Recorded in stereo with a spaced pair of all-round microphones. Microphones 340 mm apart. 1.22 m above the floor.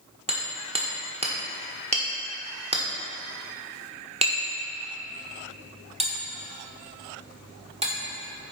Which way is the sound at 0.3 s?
20° right (ahead or behind).